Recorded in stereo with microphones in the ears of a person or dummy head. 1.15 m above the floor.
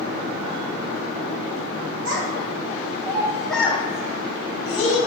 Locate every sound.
2.0 s a child speaking: 70° right (ahead or behind), 1.3 m; by 5.0 s 65° left (ahead or behind), 1.5 m